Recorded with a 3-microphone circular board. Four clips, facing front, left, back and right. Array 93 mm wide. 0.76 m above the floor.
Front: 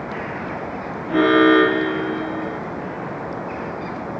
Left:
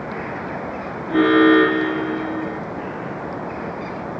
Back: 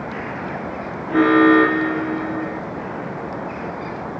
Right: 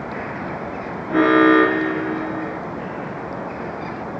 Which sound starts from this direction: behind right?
An alarm, at 1.1 s.